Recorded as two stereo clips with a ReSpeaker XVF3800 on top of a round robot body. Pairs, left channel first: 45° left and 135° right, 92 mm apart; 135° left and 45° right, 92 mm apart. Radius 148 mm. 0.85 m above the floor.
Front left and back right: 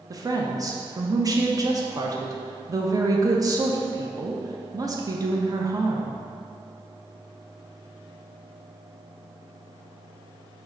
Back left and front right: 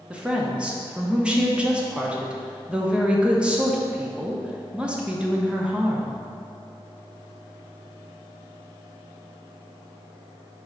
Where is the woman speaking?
120° right, 0.9 m.